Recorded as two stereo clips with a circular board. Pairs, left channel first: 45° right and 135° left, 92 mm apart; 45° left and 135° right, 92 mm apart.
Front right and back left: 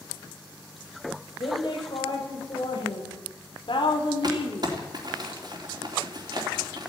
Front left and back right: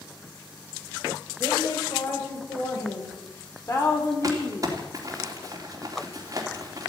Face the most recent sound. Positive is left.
turn(degrees=175)